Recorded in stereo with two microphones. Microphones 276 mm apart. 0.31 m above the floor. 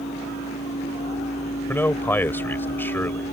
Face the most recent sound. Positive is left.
turn(degrees=10)  # may be behind; listen again after turning